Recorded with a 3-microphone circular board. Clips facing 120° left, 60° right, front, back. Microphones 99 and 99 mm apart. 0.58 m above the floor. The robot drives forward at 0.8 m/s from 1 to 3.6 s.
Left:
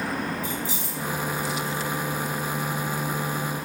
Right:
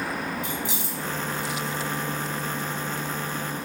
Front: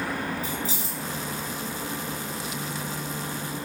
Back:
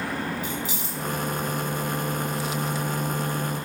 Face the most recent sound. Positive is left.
turn(degrees=-90)